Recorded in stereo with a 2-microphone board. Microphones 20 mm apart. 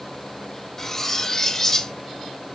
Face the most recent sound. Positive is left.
turn(degrees=20)  # may be behind; listen again after turning